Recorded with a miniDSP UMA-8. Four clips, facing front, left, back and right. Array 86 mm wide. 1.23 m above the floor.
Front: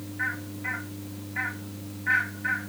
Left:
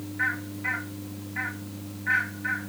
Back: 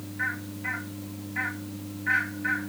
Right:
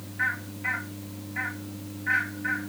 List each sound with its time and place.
Only background noise.